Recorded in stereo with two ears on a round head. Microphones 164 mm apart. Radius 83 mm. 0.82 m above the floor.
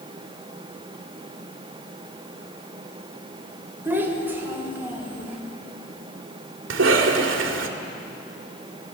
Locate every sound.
3.9 s a child speaking: 15° right (ahead or behind), 2.5 m; by 5.4 s 10° right (ahead or behind), 5 m
6.7 s a cough: 80° right, 2.5 m